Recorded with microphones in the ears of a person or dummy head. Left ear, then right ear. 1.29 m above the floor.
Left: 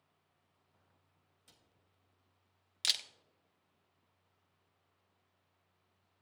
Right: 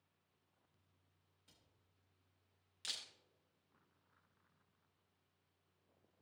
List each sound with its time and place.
1.5 s a cupboard door: 15° left (ahead or behind), 0.8 m
2.8 s a camera shutter: 35° left (ahead or behind), 0.6 m